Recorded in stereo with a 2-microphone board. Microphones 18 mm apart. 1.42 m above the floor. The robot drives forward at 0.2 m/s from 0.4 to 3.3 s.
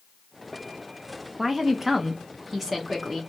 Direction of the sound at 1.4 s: 20° right (ahead or behind).